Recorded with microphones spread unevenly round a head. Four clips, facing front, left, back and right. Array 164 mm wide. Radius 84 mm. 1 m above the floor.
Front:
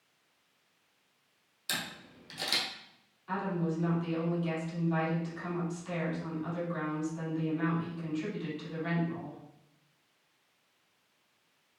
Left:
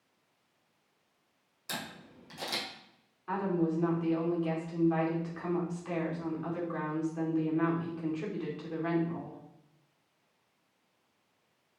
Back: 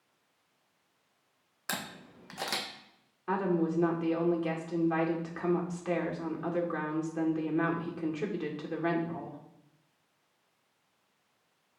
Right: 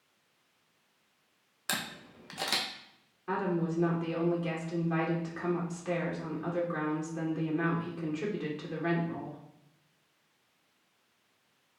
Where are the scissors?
No scissors in this recording.